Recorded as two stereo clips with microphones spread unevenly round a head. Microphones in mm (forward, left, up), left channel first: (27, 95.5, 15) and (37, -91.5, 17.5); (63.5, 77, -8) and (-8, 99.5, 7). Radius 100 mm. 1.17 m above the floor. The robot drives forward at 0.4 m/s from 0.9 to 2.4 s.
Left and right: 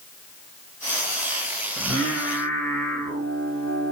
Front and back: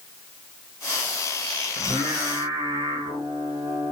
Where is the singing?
175° right, 3.5 m.